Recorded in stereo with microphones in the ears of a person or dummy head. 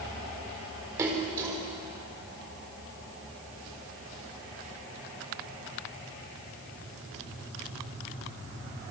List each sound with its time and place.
1.0 s a splash: 15° right (ahead or behind), 3.5 m